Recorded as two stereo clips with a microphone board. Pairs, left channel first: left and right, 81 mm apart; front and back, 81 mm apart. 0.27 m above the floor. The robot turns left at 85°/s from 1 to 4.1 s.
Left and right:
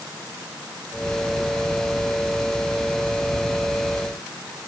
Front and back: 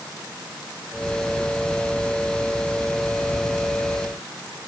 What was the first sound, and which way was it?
Only background noise.